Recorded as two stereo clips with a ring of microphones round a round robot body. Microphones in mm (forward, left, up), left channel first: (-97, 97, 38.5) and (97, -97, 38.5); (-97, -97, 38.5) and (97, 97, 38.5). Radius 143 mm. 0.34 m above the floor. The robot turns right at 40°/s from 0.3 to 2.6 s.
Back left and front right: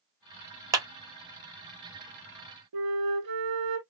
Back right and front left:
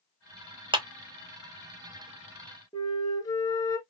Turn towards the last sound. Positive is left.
turn(degrees=-60)